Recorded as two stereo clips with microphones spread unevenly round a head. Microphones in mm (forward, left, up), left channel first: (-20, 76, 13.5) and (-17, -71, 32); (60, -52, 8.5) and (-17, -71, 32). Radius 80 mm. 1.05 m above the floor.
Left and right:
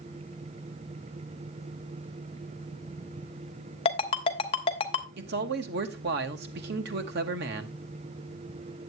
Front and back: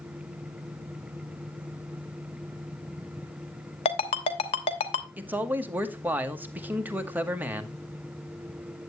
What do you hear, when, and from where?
3.9 s a ringtone: 35° left, 0.9 m
5.2 s a man speaking: 95° right, 1.3 m